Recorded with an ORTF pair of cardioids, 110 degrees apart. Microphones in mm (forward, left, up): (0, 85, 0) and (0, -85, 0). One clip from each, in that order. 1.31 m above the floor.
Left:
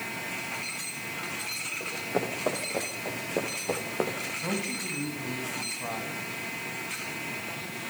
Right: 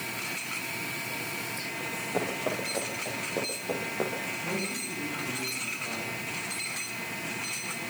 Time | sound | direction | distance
1.8 | running footsteps | 20° left | 10 m
4.4 | a man speaking | 65° left | 9.5 m